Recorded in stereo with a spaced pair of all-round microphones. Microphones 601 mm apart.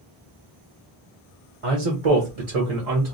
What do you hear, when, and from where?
1.6 s a man speaking: 60° right (ahead or behind), 0.9 m; by 3.1 s 75° right (ahead or behind), 1.4 m